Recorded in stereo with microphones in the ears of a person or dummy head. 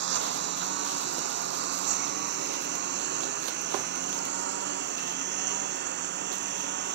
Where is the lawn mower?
45° right (ahead or behind).